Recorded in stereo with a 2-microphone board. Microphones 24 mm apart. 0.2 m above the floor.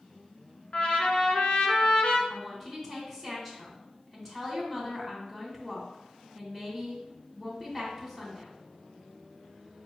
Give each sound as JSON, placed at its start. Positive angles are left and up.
{"t": 0.7, "sound": "a trumpet", "side_deg": 55, "distance_m": 0.8}
{"t": 2.3, "sound": "a woman speaking", "side_deg": 15, "distance_m": 1.1}